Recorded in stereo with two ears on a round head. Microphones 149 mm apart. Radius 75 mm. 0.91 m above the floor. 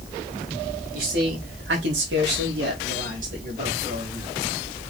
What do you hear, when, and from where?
0.9 s a man speaking: 60° right (ahead or behind), 2.5 m; by 4.4 s 30° right (ahead or behind), 2.5 m